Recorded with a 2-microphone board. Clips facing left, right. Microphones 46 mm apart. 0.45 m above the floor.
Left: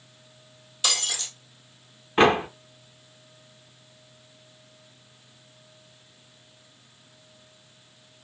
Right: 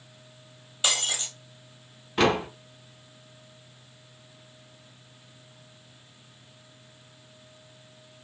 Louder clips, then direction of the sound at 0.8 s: Right 1 dB; 20° right (ahead or behind).